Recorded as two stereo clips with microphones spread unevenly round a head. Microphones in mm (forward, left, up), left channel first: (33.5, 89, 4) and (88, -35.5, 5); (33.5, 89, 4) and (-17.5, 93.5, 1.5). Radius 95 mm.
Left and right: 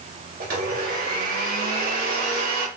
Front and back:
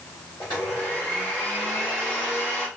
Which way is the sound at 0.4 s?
75° right.